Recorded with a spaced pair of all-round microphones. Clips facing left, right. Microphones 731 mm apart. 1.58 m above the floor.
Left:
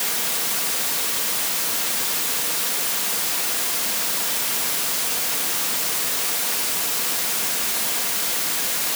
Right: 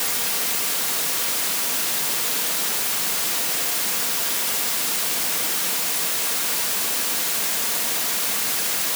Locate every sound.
Only background noise.